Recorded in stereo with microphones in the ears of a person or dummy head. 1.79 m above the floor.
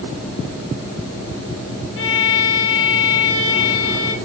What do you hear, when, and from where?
2.0 s a violin: 70° left (ahead or behind), 1.9 m